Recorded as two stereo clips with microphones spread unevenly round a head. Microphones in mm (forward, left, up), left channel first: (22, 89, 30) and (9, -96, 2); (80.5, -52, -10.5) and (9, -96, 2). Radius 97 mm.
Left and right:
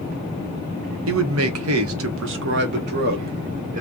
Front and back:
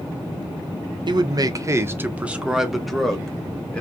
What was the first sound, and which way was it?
A man speaking, 120° right.